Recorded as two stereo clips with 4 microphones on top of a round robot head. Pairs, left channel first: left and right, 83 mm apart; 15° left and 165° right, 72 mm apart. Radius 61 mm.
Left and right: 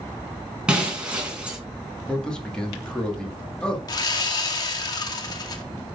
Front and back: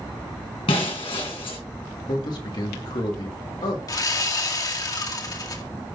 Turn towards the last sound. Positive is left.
turn(degrees=50)